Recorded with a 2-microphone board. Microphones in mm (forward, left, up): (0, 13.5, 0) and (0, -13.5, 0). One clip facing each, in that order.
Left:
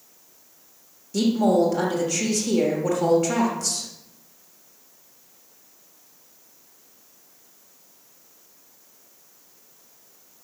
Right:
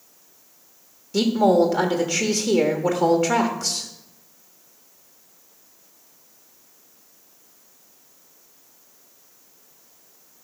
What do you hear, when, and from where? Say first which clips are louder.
1.1 s a woman speaking: right 2 dB; 25° right (ahead or behind), 1.2 m